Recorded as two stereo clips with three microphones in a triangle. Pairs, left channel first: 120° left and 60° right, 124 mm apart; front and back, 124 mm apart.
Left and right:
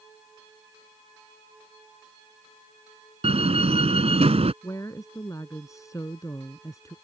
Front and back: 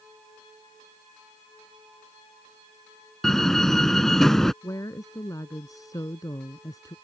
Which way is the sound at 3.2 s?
85° right.